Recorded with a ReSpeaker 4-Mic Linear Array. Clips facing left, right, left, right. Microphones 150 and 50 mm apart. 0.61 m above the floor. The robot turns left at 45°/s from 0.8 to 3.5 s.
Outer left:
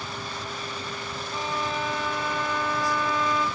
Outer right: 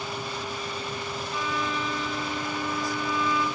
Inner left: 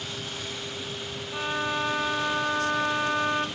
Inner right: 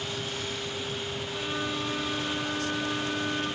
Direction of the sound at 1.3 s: 145° left.